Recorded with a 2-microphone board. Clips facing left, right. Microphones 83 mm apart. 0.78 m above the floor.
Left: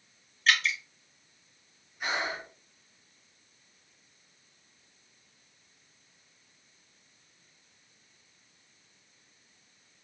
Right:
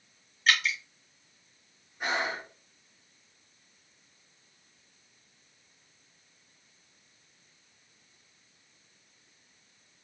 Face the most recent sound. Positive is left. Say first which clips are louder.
# right 2 dB
turn(degrees=-35)  # may be behind; listen again after turning